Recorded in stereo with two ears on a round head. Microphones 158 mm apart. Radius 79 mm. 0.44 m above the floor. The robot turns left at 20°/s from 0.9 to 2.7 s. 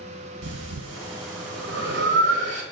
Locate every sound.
0.4 s breathing: 75° right (ahead or behind), 0.8 m; by 2.6 s 65° right (ahead or behind), 0.8 m